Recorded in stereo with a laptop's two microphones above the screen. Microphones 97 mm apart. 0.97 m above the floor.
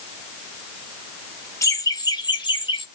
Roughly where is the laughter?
Left.